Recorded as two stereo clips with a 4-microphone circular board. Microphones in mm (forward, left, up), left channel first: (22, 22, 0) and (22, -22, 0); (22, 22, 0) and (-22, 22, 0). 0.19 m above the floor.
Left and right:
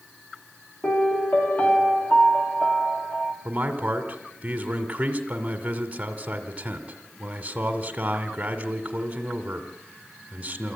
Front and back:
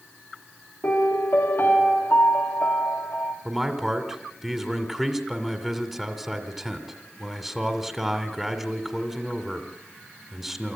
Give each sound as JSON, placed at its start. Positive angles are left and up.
{"t": 0.8, "sound": "a piano", "azimuth_deg": 30, "distance_m": 2.5}
{"t": 3.5, "sound": "a man speaking", "azimuth_deg": -95, "distance_m": 1.6}